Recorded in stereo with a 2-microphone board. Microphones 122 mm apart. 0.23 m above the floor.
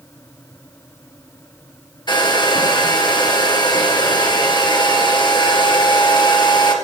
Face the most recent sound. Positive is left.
turn(degrees=35)  # may be behind; listen again after turning